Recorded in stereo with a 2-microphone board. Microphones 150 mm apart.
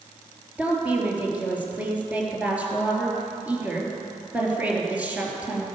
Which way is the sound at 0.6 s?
10° right (ahead or behind).